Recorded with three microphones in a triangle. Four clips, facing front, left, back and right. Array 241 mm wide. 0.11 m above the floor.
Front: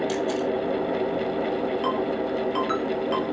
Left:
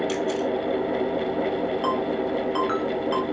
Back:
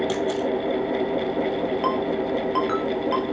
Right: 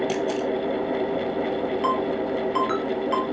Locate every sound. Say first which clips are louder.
0.1 s a camera shutter: even, back 1 dB; 130° right, 1.2 m
1.8 s a ringtone: right 1 dB, back 2 dB; 170° left, 1.7 m